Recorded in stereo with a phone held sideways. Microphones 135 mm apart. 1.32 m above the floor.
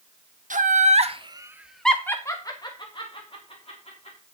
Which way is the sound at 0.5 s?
75° right (ahead or behind).